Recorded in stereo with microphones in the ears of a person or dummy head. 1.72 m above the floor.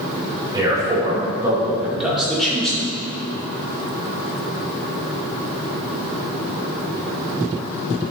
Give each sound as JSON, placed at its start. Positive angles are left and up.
{"t": 0.5, "sound": "a man speaking", "side_deg": -20, "distance_m": 3.0}